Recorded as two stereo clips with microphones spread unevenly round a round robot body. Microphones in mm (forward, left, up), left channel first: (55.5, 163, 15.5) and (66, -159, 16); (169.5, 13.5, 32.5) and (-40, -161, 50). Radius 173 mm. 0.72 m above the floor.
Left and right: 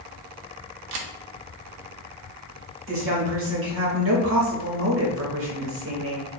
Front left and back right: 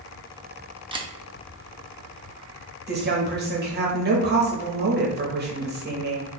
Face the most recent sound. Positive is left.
turn(degrees=-105)